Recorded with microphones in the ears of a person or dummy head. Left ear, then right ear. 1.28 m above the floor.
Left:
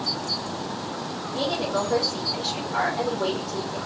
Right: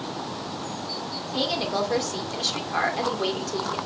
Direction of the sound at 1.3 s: 75° right (ahead or behind).